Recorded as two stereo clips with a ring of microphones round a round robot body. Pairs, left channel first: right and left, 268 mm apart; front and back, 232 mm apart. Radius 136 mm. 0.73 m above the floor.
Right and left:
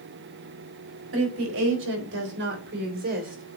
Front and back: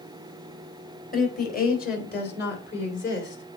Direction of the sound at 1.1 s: 50° left.